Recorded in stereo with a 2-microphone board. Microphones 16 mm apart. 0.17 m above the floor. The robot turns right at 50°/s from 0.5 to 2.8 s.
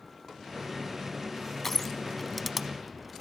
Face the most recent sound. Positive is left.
turn(degrees=-10)  # may be behind; listen again after turning